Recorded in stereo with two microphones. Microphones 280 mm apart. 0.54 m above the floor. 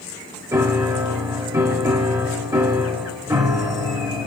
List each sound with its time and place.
0.5 s a piano: 10° right (ahead or behind), 0.9 m